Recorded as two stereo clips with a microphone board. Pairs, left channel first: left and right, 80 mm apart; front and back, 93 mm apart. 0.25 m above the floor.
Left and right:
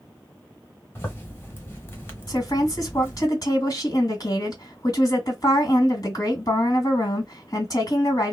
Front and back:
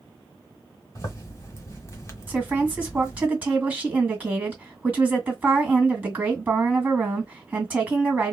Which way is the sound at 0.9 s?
40° left.